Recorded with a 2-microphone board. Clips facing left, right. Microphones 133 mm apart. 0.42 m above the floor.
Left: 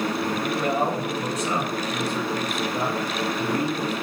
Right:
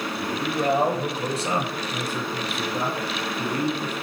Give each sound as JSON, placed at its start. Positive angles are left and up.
{"t": 0.2, "sound": "a man speaking", "side_deg": -35, "distance_m": 2.5}